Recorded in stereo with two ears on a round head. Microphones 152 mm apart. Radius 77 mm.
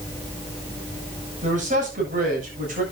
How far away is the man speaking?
About 8 m.